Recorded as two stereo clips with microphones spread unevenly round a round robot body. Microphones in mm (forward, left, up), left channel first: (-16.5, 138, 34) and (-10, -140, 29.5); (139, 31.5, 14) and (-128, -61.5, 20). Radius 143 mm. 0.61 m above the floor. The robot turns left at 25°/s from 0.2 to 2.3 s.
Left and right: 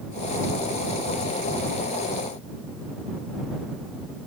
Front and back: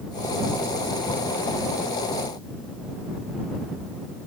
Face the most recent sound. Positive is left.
No sound to turn to.